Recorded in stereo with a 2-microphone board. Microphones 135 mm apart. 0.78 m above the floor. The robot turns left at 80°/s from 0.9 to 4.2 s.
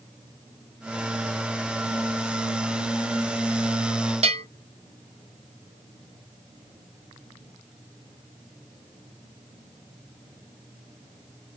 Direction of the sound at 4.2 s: 50° right (ahead or behind).